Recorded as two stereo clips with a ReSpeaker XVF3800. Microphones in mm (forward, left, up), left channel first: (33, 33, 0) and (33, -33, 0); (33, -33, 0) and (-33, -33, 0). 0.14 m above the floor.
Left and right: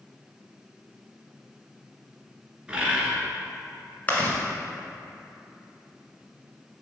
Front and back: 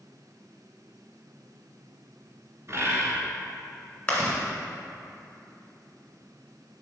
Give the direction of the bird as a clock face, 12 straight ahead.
5 o'clock.